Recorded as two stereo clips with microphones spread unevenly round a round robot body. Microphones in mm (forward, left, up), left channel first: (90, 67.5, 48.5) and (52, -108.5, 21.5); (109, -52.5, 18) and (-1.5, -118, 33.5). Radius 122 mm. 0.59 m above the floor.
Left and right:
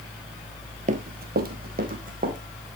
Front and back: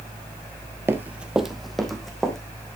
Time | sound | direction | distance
0.9 | running footsteps | 120° right | 0.6 m